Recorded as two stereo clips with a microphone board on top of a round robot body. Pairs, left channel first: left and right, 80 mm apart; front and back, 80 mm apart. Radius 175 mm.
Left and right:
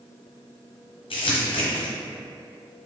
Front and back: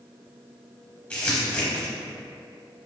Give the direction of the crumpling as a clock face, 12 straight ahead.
10 o'clock.